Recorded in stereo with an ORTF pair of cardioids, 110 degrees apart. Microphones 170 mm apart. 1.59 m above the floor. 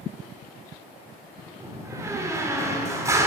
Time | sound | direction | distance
1.6 | a door slam | 20° right | 3 m